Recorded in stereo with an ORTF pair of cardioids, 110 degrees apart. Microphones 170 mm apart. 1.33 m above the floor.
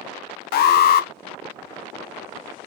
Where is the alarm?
60° left, 0.6 m.